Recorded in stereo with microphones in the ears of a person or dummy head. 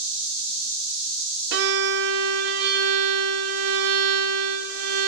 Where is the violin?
55° right (ahead or behind), 0.7 m.